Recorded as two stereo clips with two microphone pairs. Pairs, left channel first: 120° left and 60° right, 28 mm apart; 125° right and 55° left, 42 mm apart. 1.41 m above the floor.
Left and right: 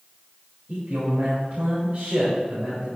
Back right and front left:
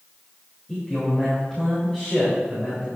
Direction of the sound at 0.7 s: 50° right.